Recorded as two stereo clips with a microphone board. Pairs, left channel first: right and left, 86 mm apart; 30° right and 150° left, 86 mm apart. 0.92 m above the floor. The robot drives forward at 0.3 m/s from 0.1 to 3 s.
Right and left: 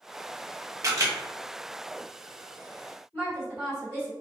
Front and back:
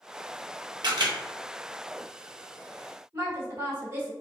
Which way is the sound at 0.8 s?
135° left.